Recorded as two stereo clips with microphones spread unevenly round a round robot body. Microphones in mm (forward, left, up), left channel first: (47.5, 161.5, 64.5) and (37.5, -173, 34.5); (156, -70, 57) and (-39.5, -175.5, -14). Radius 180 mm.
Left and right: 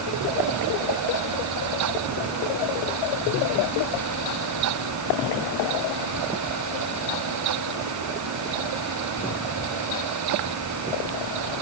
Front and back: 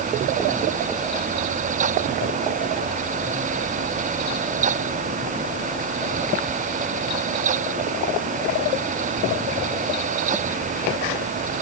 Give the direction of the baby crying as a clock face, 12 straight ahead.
I don't hear a baby crying.